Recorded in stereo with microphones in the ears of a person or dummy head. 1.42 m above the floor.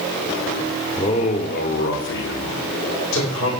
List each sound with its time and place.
1.0 s a man speaking: 20° left (ahead or behind), 0.8 m; by 3.5 s 70° left (ahead or behind), 3 m